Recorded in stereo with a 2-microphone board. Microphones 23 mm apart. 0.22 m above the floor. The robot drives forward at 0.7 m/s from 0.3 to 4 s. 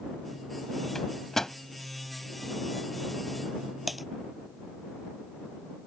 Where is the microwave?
20° left (ahead or behind).